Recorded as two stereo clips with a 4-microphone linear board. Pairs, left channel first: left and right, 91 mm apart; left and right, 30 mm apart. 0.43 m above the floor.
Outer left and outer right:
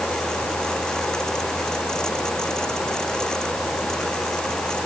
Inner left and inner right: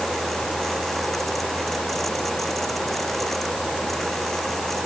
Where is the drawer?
No drawer in this recording.